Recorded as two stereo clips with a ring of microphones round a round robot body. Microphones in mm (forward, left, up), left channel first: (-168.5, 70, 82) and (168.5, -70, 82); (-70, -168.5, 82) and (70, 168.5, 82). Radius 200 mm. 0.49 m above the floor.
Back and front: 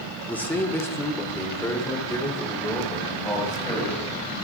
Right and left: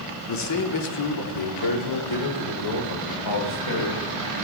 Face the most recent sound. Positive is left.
turn(degrees=-125)